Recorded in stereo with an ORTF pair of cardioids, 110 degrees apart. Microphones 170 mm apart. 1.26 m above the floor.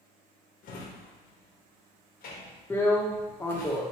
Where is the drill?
15° left, 0.8 m.